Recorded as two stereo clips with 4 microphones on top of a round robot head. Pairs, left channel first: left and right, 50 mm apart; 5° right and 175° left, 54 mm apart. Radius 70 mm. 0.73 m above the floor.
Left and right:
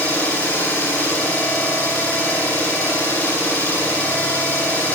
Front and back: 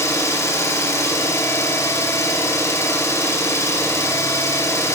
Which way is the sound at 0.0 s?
25° left.